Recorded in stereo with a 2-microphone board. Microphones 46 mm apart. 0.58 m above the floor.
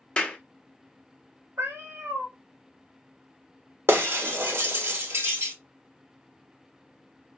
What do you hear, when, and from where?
0.2 s a clap: 20° left (ahead or behind), 0.7 m
1.6 s a cat meowing: 70° right (ahead or behind), 1.3 m
3.9 s breaking glass: 65° right (ahead or behind), 1.1 m